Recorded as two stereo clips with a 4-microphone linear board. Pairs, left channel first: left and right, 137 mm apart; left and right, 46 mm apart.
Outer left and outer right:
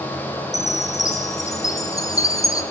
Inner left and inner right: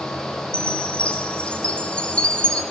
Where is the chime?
25° left (ahead or behind), 1.8 m.